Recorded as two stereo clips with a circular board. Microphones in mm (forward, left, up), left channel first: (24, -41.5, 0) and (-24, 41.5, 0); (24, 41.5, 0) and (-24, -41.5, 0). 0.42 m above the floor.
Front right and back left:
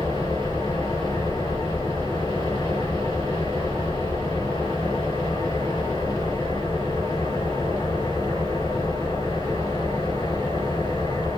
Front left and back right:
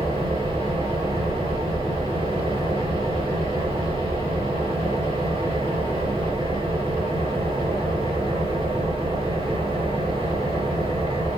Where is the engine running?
105° right, 5 m.